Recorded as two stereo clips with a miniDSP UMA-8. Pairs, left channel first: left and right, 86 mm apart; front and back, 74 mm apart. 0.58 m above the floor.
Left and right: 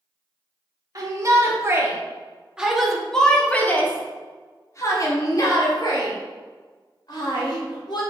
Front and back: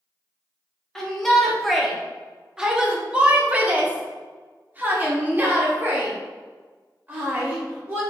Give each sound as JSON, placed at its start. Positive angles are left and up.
{"t": 0.9, "sound": "a shout", "azimuth_deg": -80, "distance_m": 1.4}